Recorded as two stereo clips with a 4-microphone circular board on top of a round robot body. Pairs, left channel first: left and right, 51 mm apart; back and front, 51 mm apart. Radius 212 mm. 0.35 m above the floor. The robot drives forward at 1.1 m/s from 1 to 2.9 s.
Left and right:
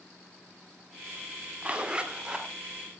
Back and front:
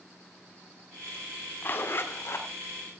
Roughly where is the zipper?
Behind right.